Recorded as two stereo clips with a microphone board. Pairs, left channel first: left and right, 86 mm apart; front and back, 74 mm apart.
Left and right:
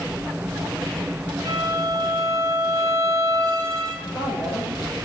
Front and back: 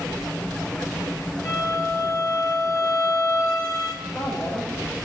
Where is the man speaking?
60° left, 6 m.